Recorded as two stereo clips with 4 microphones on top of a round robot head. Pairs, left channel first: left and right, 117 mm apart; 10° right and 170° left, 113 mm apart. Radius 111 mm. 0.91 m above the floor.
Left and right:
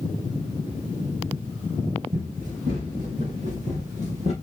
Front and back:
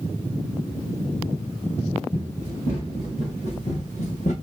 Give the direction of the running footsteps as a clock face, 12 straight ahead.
2 o'clock.